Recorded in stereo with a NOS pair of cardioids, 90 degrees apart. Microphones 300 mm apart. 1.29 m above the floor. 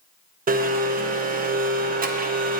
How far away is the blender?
About 0.7 m.